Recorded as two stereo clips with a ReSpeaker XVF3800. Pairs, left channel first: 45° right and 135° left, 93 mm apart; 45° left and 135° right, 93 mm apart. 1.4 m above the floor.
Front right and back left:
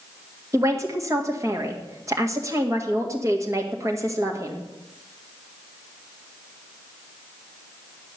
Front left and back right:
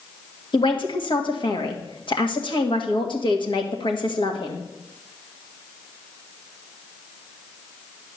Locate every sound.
0.5 s a man speaking: 75° left, 1.8 m